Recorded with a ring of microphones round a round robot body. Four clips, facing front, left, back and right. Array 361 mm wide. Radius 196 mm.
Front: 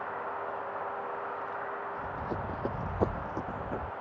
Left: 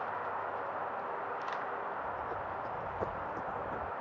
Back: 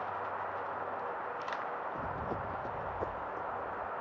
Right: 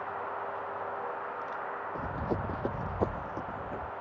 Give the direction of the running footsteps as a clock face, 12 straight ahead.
4 o'clock.